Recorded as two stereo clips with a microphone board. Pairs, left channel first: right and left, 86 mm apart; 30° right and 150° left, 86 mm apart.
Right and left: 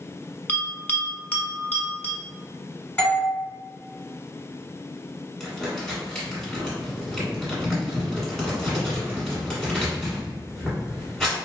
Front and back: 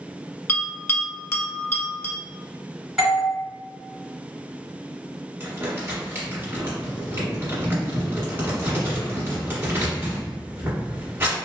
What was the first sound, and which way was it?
A bell, 45° right.